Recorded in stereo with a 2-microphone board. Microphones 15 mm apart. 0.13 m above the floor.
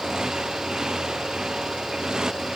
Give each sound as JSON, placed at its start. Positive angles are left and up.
{"t": 0.0, "sound": "a motorcycle", "side_deg": -50}